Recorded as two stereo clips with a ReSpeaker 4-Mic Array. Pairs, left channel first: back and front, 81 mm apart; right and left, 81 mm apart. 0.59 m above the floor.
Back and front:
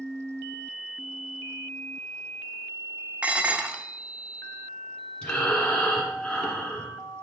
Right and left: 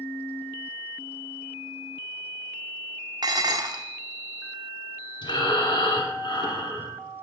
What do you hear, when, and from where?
3.2 s dishes clattering: 75° left, 0.6 m
5.2 s breathing: 100° right, 1.8 m